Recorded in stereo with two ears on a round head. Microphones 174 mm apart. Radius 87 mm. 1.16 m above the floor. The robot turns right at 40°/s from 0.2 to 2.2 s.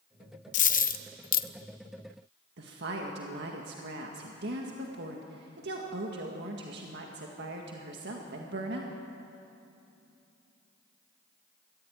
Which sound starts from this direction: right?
A woman speaking, at 2.6 s.